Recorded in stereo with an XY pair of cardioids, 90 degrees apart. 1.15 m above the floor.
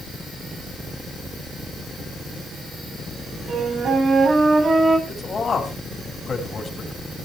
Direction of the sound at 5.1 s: 40° left.